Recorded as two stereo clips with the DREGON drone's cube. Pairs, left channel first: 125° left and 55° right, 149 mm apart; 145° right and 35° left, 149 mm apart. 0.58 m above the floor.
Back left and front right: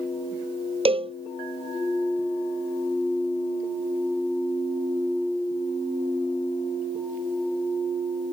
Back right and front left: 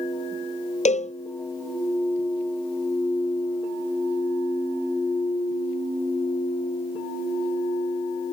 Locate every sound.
0.8 s a cowbell: 110° right